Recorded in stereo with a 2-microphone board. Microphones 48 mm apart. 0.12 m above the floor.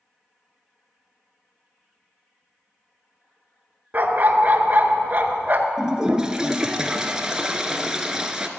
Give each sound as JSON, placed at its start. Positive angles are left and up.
{"t": 3.9, "sound": "a dog barking", "side_deg": -40, "distance_m": 0.8}
{"t": 5.8, "sound": "a toilet flushing", "side_deg": -15, "distance_m": 0.7}